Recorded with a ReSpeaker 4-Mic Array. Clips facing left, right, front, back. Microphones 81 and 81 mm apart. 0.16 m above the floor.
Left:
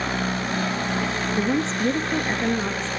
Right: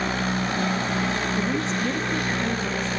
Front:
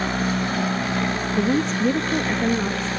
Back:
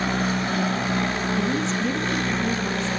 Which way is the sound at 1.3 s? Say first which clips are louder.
Left 2 dB, front 6 dB; 30° left.